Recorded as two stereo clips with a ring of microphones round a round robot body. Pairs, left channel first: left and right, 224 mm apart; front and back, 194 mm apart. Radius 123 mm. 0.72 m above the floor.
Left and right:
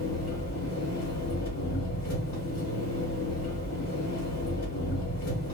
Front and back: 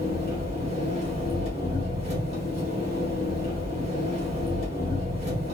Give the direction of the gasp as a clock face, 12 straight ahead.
No gasp in this recording.